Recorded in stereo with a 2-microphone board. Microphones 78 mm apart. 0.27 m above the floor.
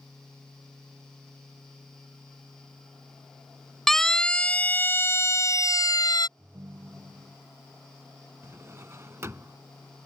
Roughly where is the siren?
Centre.